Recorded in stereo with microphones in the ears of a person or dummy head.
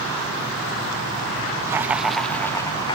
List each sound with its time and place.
1.7 s laughter: 15° right (ahead or behind); by 3.0 s 25° left (ahead or behind)